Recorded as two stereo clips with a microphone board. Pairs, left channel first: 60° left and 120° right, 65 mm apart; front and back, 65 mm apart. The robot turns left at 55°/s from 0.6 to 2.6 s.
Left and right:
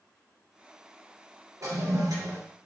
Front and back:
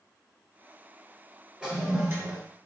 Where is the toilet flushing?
105° right, 3 m; by 2.4 s 145° right, 3 m.